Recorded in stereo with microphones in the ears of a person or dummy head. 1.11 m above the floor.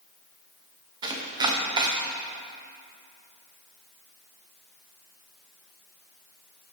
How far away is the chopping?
About 0.9 m.